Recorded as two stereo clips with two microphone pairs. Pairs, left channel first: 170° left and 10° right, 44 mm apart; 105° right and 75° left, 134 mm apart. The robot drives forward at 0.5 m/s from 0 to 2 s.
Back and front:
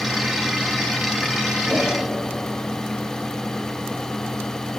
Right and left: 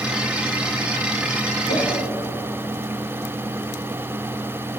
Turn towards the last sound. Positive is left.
turn(degrees=-115)